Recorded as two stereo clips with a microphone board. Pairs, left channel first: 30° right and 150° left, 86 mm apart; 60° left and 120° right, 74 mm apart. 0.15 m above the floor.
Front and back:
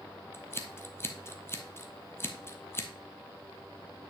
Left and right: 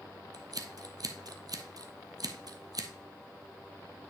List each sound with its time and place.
0.3 s scissors: 90° right, 0.8 m